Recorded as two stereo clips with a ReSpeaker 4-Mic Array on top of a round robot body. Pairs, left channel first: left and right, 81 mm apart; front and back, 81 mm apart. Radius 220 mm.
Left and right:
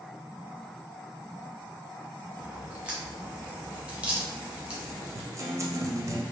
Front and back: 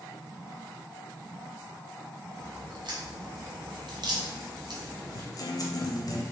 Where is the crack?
165° right, 0.8 m.